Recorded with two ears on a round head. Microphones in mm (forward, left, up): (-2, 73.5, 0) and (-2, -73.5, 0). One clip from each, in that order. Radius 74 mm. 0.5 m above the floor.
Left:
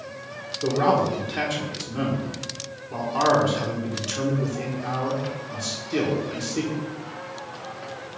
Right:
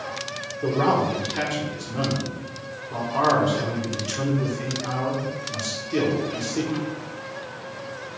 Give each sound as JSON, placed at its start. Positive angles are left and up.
{"t": 0.6, "sound": "a man speaking", "side_deg": 10, "distance_m": 1.5}